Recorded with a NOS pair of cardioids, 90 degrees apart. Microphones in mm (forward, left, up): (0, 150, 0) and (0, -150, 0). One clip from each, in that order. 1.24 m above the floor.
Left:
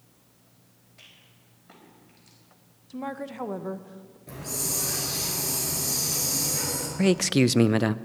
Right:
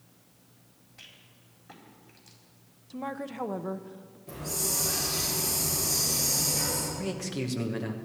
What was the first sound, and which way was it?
A rattle, 10° right.